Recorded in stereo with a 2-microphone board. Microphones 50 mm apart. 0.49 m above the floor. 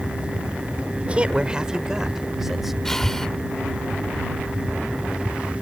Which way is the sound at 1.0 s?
25° right (ahead or behind).